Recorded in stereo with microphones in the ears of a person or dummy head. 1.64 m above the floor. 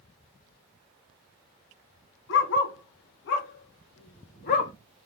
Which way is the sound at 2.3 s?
75° left (ahead or behind).